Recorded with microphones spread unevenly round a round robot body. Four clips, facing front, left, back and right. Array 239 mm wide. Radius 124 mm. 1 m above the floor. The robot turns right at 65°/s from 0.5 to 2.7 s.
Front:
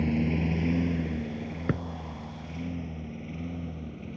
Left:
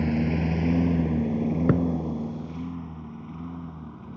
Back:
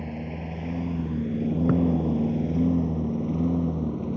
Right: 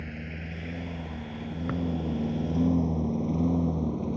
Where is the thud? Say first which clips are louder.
Left 8 dB, back 7 dB; 105° left; by 1.9 s 115° left.